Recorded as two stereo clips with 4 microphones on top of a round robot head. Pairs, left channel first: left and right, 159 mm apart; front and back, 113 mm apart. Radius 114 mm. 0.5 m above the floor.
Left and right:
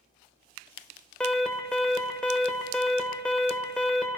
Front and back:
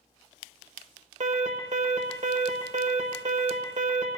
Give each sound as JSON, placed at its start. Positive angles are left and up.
{"t": 1.2, "sound": "an alarm", "azimuth_deg": 175, "distance_m": 1.4}